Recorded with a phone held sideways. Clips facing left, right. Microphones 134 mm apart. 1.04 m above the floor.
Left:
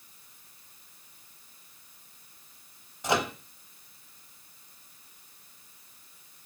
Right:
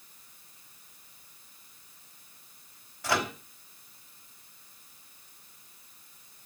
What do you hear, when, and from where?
3.0 s a microwave: 20° left (ahead or behind), 0.9 m